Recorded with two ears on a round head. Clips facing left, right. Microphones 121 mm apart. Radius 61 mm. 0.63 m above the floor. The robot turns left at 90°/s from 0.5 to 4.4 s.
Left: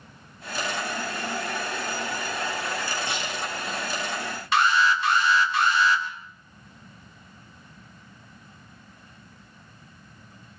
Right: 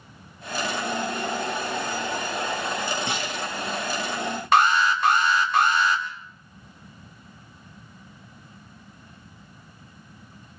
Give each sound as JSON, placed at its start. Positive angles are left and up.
{"t": 3.1, "sound": "a clunk", "side_deg": -60, "distance_m": 8.5}
{"t": 4.5, "sound": "an alarm", "side_deg": -40, "distance_m": 2.5}